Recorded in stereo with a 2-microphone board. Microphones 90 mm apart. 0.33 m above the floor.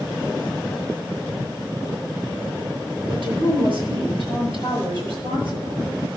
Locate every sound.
3.1 s a woman speaking: 55° right (ahead or behind), 6.5 m; by 5.9 s 65° right (ahead or behind), 7.5 m